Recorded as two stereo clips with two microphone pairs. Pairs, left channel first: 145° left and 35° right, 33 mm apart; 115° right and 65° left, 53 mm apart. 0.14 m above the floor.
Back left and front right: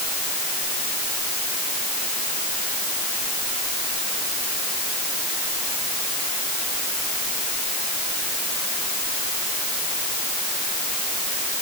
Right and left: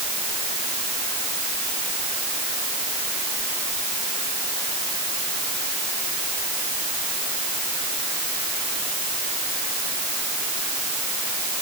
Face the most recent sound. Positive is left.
No sound to turn to.